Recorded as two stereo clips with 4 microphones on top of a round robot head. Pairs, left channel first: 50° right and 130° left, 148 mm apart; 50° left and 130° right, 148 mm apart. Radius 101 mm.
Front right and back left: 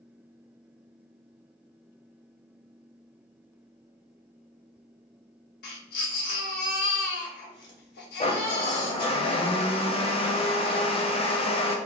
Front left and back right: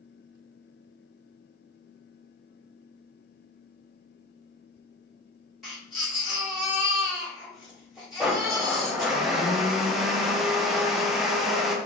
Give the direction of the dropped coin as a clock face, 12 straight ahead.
I don't hear a dropped coin.